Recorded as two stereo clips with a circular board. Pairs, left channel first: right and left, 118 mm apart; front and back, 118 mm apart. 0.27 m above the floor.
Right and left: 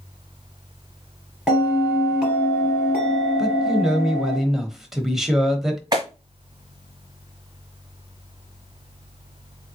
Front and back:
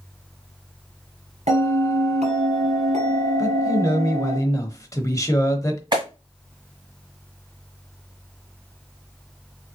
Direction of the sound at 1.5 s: 175° left.